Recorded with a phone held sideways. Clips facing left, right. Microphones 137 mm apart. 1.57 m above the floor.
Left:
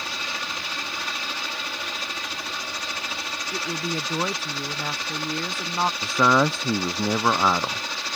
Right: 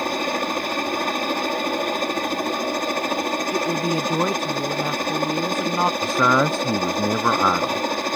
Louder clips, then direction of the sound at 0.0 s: Right 11 dB; 50° right (ahead or behind).